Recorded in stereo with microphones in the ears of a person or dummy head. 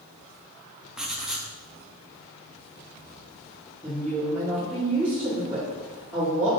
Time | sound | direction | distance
1.0 | writing | 5° right (ahead or behind) | 0.8 m
3.8 | a woman speaking | 10° right (ahead or behind) | 1.9 m